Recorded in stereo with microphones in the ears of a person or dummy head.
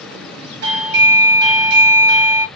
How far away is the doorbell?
About 0.9 m.